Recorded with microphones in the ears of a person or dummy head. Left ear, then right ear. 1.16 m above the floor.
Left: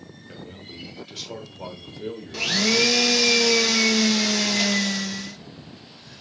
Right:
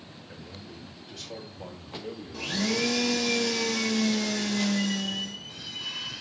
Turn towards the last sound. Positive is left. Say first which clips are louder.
# left 9 dB
turn(degrees=65)  # may be behind; listen again after turning